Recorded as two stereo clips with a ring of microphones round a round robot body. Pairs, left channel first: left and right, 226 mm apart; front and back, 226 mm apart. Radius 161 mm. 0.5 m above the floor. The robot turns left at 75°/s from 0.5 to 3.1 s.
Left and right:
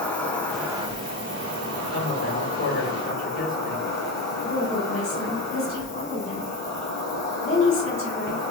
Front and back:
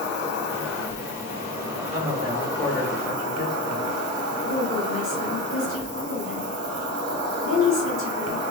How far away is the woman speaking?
About 1.7 m.